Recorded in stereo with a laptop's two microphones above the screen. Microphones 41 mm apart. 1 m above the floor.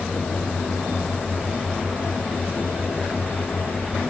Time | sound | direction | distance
0.0 | a fan | 70° left (ahead or behind) | 1.7 m